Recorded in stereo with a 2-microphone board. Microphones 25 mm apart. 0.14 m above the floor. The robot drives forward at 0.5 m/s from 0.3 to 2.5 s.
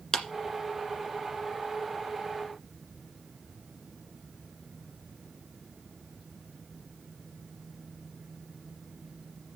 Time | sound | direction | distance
0.1 | a clap | 25° left (ahead or behind) | 1.7 m